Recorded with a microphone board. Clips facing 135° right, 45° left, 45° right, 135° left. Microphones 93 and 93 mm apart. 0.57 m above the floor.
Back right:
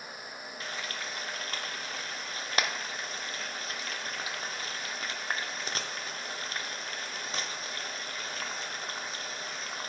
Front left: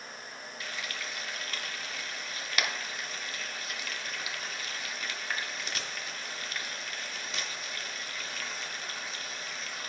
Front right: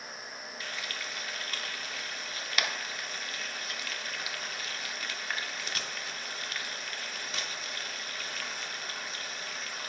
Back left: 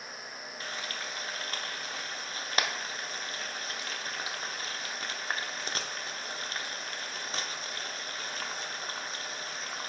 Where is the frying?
Straight behind, 0.6 m.